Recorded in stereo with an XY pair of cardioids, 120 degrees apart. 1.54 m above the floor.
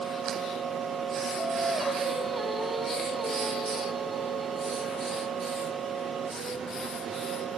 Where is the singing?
20° right, 4.5 m.